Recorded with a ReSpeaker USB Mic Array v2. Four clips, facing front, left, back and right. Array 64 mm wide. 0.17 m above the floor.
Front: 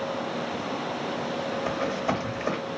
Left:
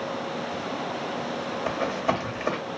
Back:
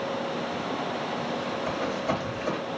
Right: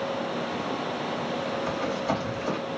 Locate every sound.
1.7 s running footsteps: 55° left, 1.3 m